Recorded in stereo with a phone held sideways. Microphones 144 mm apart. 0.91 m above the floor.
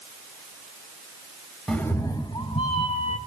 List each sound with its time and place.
1.7 s a cat meowing: 5° left (ahead or behind), 0.7 m; by 3.2 s 45° left (ahead or behind), 2 m